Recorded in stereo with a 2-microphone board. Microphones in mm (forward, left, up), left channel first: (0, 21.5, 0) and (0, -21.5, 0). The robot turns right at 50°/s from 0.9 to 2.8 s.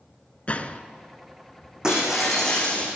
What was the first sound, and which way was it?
A gunshot, 35° left (ahead or behind).